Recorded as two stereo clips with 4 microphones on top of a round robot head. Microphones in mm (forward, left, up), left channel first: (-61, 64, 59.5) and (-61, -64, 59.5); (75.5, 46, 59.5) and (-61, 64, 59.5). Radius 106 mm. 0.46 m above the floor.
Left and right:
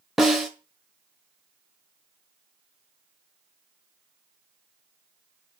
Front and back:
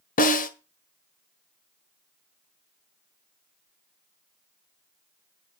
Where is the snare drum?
Straight ahead, 1.5 m.